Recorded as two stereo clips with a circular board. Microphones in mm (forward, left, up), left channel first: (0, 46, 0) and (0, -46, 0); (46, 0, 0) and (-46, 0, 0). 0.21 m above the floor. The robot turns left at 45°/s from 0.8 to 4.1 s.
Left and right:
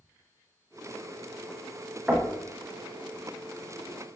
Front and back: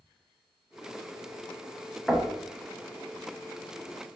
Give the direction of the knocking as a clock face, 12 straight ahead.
3 o'clock.